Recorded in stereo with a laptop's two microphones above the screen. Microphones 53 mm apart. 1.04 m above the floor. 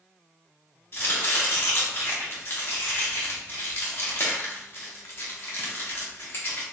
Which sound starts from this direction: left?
Chopping, at 0.9 s.